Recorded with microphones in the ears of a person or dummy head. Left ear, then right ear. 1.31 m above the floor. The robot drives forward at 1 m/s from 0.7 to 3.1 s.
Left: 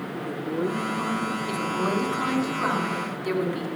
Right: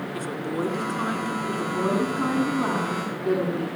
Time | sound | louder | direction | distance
0.1 | a woman speaking | even | 75° right (ahead or behind) | 4 m
1.5 | a woman speaking | right 2 dB | 80° left | 9.5 m